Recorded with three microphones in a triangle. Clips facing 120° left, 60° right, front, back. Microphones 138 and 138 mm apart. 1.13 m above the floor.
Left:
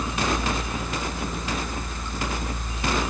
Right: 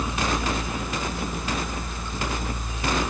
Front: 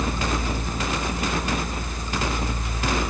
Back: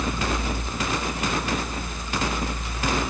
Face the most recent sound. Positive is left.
No sound to turn to.